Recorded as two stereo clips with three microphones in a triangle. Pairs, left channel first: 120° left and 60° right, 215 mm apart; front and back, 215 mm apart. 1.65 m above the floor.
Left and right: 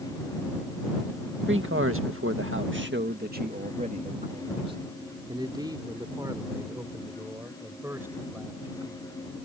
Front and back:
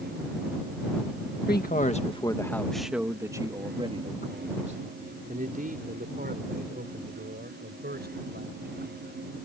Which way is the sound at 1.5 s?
40° right.